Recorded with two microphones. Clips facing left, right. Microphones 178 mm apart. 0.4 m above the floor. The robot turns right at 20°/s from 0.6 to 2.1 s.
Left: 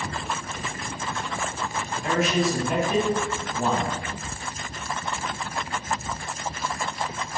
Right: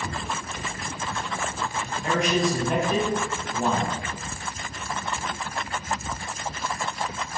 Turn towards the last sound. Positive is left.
turn(degrees=5)  # may be behind; listen again after turning